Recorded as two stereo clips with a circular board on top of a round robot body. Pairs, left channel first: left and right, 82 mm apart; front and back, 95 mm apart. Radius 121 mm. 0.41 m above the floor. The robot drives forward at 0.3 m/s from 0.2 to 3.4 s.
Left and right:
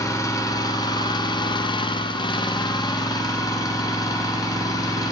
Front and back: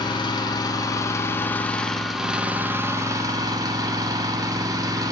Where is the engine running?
40° left, 0.8 m; by 5.1 s 130° left, 0.7 m.